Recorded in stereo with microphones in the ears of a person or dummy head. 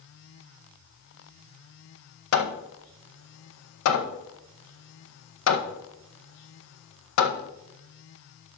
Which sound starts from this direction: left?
Hammering, at 2.3 s.